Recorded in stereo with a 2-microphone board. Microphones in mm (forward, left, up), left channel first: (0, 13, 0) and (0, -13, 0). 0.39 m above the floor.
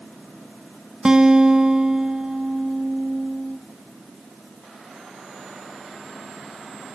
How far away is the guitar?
About 0.9 m.